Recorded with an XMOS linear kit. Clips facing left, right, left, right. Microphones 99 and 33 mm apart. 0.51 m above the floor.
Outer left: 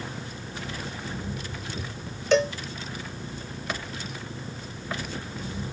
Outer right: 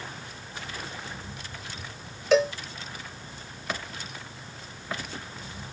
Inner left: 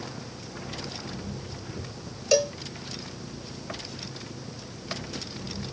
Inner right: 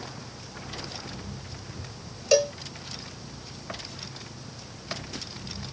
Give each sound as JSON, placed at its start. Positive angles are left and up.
{"t": 0.0, "sound": "an engine running", "side_deg": 60}
{"t": 2.3, "sound": "a cowbell", "side_deg": 0}